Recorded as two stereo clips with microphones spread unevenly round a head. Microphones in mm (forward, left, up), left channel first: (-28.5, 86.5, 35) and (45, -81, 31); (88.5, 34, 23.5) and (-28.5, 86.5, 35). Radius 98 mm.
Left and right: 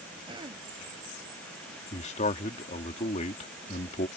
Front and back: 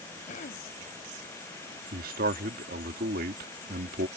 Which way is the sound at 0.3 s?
Straight ahead.